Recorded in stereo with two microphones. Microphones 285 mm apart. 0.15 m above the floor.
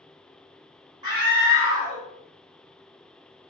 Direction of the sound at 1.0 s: 15° right (ahead or behind).